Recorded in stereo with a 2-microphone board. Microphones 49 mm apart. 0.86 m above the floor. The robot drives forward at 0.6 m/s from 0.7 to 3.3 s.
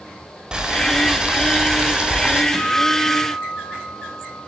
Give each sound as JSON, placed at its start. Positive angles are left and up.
{"t": 0.5, "sound": "boiling", "side_deg": -20, "distance_m": 5.0}
{"t": 2.5, "sound": "a guitar", "side_deg": -20, "distance_m": 7.0}